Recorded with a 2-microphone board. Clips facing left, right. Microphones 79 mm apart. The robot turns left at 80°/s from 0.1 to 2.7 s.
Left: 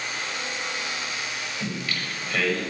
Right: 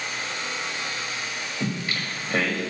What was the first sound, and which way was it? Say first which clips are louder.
Singing: right 4 dB; 20° right (ahead or behind).